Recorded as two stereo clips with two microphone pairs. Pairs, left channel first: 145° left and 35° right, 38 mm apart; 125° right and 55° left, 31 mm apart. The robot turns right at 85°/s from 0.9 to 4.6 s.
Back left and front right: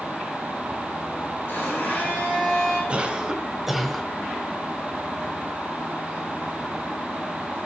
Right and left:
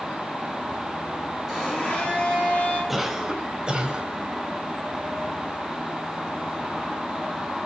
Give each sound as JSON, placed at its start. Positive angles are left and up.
{"t": 1.5, "sound": "a blender", "azimuth_deg": 145, "distance_m": 5.5}
{"t": 2.9, "sound": "a cough", "azimuth_deg": -25, "distance_m": 1.2}